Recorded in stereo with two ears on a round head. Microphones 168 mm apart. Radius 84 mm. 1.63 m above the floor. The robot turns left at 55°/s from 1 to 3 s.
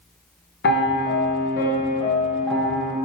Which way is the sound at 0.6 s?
90° left.